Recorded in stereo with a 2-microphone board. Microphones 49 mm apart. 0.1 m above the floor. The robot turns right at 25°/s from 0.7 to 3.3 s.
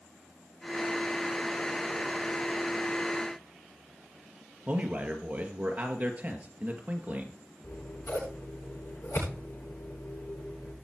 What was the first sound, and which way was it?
A man speaking, 30° right (ahead or behind).